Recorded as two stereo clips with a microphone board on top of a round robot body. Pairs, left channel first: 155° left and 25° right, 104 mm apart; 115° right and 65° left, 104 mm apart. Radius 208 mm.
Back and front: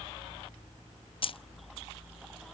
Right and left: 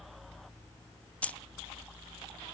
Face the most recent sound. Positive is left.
turn(degrees=170)